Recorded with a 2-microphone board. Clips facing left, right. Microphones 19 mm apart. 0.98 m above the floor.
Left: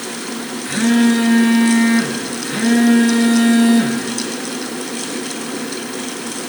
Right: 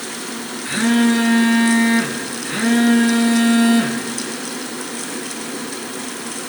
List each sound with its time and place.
0.7 s a phone buzzing: 5° right (ahead or behind), 1.6 m